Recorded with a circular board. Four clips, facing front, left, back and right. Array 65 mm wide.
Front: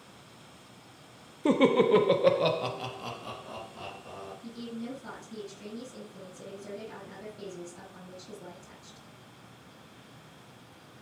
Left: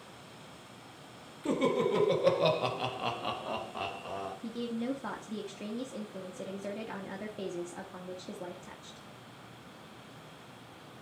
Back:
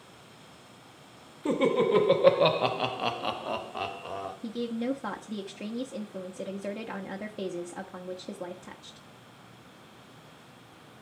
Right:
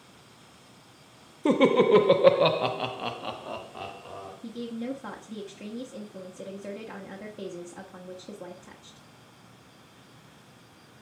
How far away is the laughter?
About 1.1 m.